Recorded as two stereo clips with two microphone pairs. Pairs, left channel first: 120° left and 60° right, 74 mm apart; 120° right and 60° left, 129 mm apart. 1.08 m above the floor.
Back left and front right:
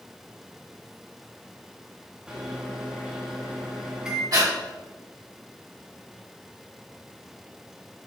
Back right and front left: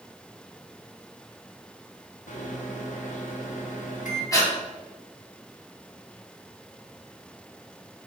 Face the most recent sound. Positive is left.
turn(degrees=-60)